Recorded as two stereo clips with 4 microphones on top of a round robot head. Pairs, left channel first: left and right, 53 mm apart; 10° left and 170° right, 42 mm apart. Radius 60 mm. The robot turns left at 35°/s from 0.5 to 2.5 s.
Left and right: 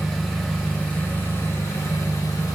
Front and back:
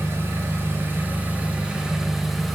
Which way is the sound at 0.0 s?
170° left.